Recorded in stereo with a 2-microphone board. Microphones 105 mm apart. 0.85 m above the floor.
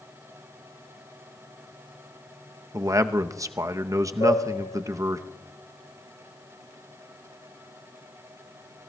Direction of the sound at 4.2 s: 60° left (ahead or behind).